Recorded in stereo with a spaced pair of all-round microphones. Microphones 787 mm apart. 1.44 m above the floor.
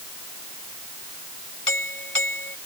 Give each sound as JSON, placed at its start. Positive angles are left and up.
{"t": 1.7, "sound": "a doorbell", "side_deg": 35}